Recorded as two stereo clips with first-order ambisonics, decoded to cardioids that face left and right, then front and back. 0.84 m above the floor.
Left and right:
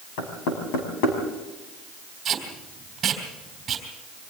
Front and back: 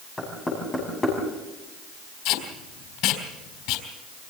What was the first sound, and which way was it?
Knocking, 80° left.